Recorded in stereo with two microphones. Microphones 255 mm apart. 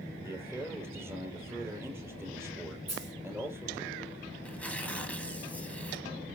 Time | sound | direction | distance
0.2 | a man speaking | 10° right (ahead or behind) | 4.5 m
2.9 | a dropped coin | 80° right | 4 m
4.4 | tearing paper | 5° left (ahead or behind) | 1.8 m